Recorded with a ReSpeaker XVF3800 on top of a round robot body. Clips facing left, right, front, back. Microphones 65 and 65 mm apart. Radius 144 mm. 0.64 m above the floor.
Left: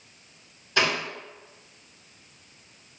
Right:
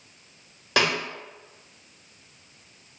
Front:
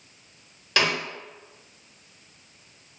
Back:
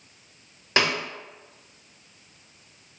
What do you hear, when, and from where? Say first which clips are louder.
0.8 s a snare drum: right 1 dB, even; 115° right, 0.9 m